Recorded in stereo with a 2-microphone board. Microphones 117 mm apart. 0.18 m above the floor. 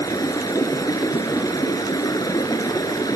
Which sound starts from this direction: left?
Running water, at 0.0 s.